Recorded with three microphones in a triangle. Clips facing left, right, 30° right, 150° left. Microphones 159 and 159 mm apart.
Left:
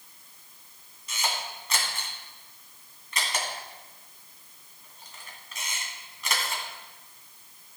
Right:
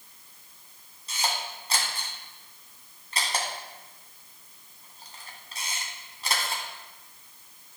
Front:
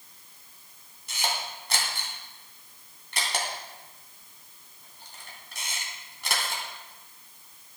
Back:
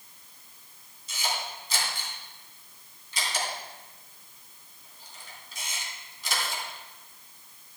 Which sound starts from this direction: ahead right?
A camera shutter, at 1.1 s.